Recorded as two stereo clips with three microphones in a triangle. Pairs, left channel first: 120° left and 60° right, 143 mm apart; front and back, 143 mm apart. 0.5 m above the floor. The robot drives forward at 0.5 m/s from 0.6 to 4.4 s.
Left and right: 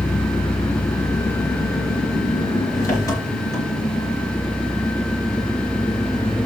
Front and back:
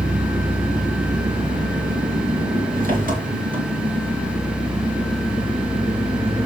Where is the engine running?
170° right, 2.5 m; by 6.5 s 175° right, 4.5 m.